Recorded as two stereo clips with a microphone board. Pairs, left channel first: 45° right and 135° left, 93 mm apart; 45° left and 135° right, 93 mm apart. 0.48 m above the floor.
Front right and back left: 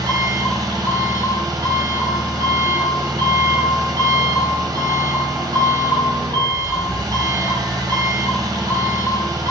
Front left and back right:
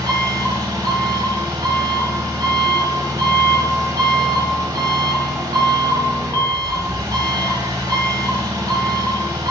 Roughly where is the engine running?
Behind.